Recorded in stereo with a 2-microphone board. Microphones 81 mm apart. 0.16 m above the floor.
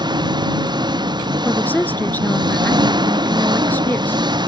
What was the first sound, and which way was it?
An engine running, 75° right (ahead or behind).